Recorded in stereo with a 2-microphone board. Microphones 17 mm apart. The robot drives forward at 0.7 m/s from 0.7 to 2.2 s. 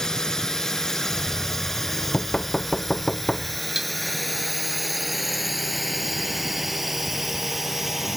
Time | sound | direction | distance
0.0 | a drone | 35° left (ahead or behind) | ?
1.1 | knocking | 35° left (ahead or behind) | ?
3.8 | dishes clattering | 25° right (ahead or behind) | ?